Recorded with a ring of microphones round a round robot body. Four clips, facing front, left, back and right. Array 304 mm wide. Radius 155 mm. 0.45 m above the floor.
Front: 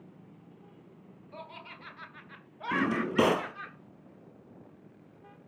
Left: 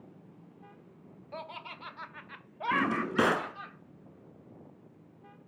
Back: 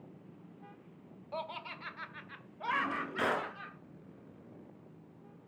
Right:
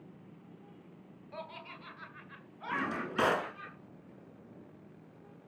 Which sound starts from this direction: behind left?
Laughter, at 1.3 s.